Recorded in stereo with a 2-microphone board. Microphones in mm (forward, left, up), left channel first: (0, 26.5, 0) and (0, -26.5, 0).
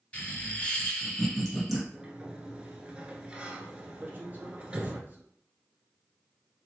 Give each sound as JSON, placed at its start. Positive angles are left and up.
{"t": 0.1, "sound": "laughter", "side_deg": 25, "distance_m": 1.6}
{"t": 1.9, "sound": "a sliding door", "side_deg": -20, "distance_m": 0.7}
{"t": 4.0, "sound": "a man speaking", "side_deg": -30, "distance_m": 1.3}